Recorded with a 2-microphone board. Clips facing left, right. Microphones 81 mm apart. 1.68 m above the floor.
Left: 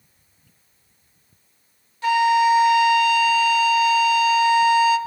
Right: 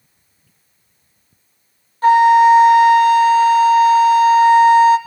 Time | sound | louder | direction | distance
2.0 | a flute | right 8 dB | 45° right (ahead or behind) | 0.7 m